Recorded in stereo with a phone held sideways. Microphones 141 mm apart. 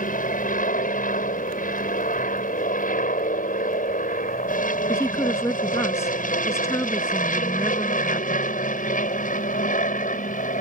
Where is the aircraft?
75° left (ahead or behind); by 10.6 s 70° left (ahead or behind).